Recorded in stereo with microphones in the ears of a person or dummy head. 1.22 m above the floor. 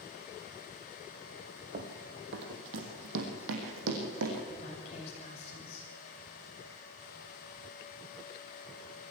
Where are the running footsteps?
50° right (ahead or behind), 2.5 m; by 4.4 s 70° right (ahead or behind), 4.5 m.